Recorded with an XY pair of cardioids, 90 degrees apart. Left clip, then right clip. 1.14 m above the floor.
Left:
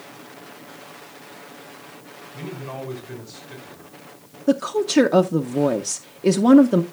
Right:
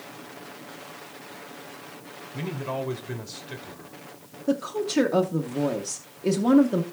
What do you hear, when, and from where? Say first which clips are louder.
2.3 s a man speaking: right 3 dB; 50° right, 3 m
4.5 s a woman speaking: left 6 dB; 50° left, 0.7 m